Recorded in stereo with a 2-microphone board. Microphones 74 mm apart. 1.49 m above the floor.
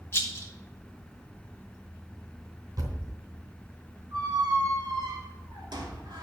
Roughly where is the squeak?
Right.